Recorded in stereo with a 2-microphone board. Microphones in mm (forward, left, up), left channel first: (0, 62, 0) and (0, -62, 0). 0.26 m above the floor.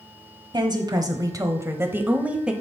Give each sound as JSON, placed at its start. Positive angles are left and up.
{"t": 0.5, "sound": "a woman speaking", "side_deg": -35, "distance_m": 1.2}